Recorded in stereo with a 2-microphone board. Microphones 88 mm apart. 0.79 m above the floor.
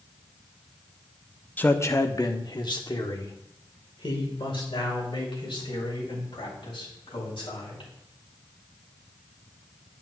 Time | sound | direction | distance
1.6 | a man speaking | 20° left (ahead or behind) | 0.7 m